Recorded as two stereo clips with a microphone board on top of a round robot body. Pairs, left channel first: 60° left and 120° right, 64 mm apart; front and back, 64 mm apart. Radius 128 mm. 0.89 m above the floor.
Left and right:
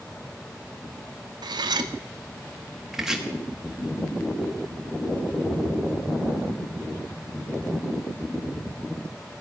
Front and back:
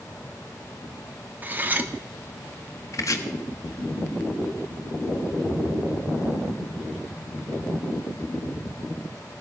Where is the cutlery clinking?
115° right, 1.0 m.